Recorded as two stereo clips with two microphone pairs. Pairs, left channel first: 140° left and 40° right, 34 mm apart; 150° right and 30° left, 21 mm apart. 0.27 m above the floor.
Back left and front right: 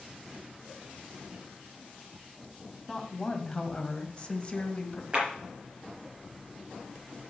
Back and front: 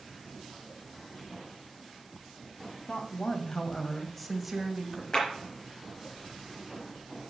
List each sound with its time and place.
2.9 s a woman speaking: 140° right, 1.8 m; by 5.0 s 95° left, 1.7 m
5.1 s a clap: 95° right, 4.5 m